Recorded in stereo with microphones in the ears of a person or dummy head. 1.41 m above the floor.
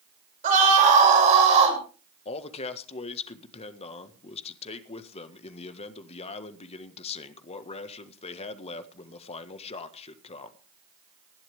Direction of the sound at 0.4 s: 40° right (ahead or behind).